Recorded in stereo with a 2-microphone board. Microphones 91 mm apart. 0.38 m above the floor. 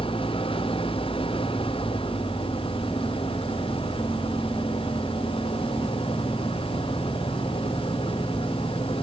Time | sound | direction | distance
0.0 | an engine running | 85° left | ?